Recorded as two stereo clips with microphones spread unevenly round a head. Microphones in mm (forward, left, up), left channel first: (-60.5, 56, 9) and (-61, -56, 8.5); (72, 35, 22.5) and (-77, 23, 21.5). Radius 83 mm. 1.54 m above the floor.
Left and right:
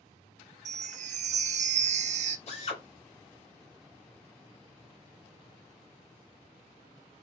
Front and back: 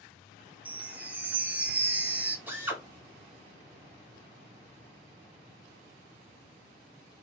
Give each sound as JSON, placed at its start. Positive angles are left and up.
{"t": 0.7, "sound": "a chime", "azimuth_deg": -95, "distance_m": 0.7}
{"t": 2.5, "sound": "a drill", "azimuth_deg": 110, "distance_m": 2.0}